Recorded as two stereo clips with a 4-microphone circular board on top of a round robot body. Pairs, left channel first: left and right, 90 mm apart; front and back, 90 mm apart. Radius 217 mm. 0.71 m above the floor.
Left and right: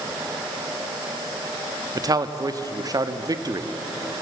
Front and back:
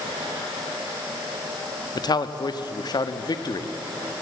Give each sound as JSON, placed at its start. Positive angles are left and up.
{"t": 1.9, "sound": "a man speaking", "azimuth_deg": -40, "distance_m": 1.3}